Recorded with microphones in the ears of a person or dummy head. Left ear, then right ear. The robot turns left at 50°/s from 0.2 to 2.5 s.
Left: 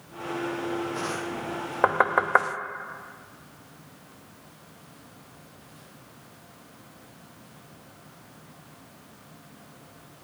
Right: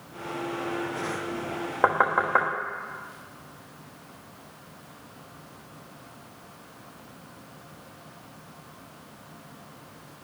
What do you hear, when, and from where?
1.8 s knocking: 10° left (ahead or behind), 1.0 m; by 2.5 s 40° left (ahead or behind), 1.0 m